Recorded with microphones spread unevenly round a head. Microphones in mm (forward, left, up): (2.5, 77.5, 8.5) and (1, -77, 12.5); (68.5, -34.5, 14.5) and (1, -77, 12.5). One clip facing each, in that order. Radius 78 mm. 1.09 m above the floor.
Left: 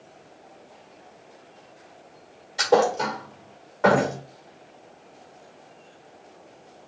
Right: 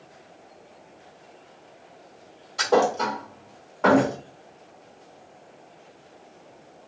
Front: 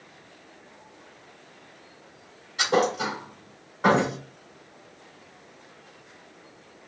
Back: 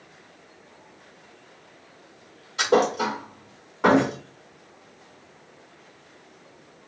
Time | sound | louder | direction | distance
2.6 | a thud | left 1 dB, back 3 dB | 175° left | 1.7 m